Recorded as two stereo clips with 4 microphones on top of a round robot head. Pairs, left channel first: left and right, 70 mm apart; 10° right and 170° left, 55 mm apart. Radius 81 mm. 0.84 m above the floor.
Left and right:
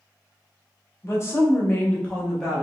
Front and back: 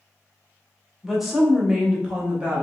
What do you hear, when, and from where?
1.0 s a woman speaking: 80° left, 1.2 m; by 2.6 s 175° left, 0.9 m